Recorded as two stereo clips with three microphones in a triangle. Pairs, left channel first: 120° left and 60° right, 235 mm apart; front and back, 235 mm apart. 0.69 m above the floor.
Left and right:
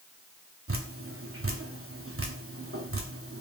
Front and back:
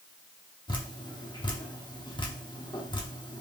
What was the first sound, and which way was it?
Dripping, 65° right.